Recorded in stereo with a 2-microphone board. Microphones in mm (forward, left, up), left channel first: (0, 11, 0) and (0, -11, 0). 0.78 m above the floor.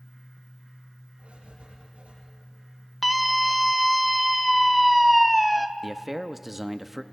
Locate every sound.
1.2 s writing: 70° right (ahead or behind), 8.5 m
3.0 s a scream: 5° right (ahead or behind), 0.8 m
5.8 s a man speaking: 10° right (ahead or behind), 0.7 m